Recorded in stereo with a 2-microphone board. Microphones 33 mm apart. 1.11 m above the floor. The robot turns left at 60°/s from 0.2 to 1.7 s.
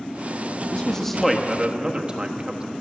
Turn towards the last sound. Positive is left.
turn(degrees=-30)